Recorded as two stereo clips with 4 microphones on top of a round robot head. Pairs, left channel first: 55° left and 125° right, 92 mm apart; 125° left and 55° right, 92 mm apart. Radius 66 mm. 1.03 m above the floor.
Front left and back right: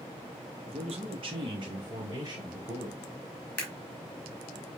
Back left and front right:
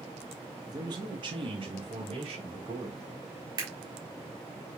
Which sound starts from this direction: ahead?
A camera shutter, at 3.6 s.